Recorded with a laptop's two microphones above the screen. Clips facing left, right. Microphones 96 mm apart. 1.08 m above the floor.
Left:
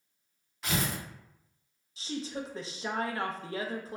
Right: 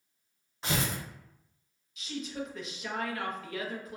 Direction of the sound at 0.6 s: 25° right (ahead or behind).